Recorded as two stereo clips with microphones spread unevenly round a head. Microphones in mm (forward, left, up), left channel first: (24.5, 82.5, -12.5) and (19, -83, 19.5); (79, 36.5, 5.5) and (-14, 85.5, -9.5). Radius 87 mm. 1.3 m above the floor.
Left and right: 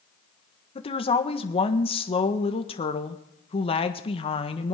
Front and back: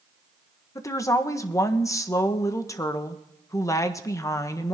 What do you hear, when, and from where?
0.8 s a woman speaking: 35° left, 1.5 m